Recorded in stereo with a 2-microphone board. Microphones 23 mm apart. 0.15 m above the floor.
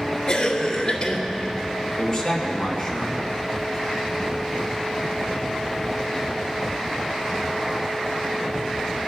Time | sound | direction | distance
0.3 | a cough | 30° left (ahead or behind) | 2.5 m
2.0 | a man speaking | 10° left (ahead or behind) | 3 m